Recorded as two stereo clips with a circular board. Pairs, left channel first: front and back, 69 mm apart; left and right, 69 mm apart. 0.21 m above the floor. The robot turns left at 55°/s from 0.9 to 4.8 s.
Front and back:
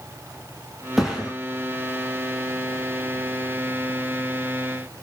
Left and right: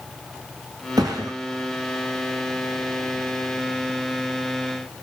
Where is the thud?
95° right, 8.5 m; by 1.3 s 110° right, 8.5 m.